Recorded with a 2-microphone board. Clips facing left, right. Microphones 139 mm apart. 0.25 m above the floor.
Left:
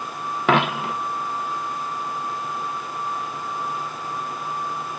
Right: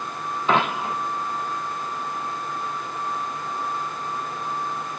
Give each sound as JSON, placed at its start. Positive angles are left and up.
{"t": 0.5, "sound": "a dropped coin", "side_deg": 80, "distance_m": 0.8}